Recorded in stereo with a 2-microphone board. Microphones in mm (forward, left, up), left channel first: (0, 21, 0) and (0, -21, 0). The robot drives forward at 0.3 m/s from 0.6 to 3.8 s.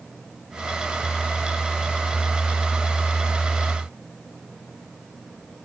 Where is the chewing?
I don't hear chewing.